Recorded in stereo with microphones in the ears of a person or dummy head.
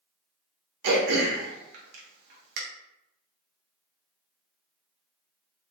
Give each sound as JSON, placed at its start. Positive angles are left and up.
{"t": 0.8, "sound": "throat clearing", "side_deg": -55, "distance_m": 0.8}